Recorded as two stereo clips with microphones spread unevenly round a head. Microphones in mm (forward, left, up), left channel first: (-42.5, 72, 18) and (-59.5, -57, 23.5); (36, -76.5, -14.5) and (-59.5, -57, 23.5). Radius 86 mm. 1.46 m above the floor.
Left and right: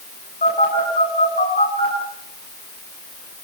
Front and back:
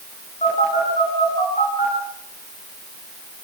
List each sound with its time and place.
0.4 s a phone buzzing: 35° left, 9 m